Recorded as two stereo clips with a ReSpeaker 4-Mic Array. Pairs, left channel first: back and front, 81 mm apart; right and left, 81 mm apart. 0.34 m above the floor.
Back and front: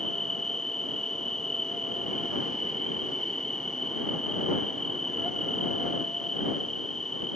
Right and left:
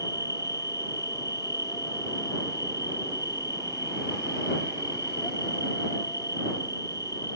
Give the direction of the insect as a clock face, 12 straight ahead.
3 o'clock.